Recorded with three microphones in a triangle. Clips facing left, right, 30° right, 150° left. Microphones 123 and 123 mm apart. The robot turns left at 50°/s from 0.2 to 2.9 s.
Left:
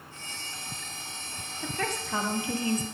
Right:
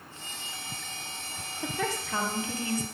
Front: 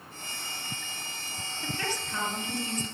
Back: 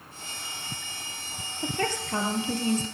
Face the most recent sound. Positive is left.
turn(degrees=135)